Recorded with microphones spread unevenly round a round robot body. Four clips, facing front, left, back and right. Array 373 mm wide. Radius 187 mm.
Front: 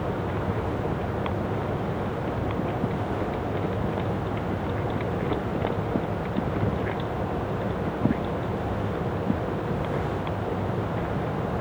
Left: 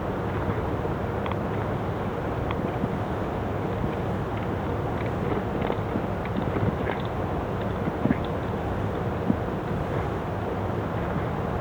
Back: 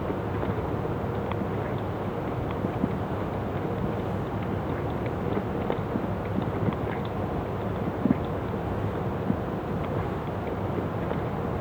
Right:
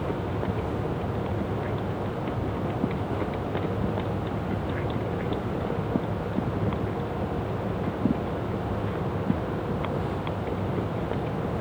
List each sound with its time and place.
Only background noise.